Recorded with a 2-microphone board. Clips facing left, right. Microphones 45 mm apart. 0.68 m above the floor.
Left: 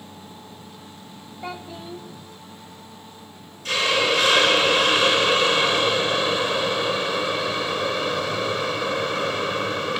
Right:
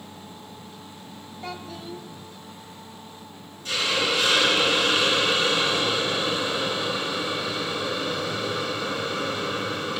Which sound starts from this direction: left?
A hiss, at 3.6 s.